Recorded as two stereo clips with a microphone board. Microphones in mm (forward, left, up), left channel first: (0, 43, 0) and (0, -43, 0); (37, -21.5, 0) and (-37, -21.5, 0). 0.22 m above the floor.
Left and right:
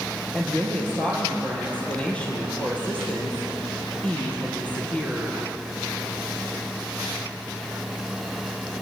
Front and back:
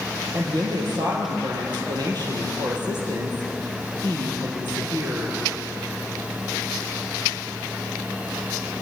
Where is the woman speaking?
165° left, 5.5 m.